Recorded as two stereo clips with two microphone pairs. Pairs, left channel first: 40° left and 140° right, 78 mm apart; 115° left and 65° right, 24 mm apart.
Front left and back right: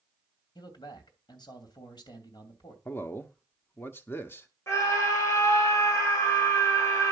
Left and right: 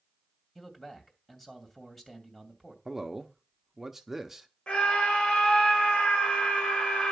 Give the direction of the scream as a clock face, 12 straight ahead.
9 o'clock.